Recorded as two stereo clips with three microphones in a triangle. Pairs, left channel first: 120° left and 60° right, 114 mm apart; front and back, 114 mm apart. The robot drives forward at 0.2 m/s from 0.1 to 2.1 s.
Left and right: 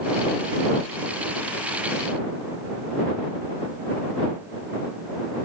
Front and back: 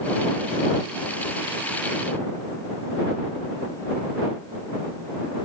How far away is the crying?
No crying in this recording.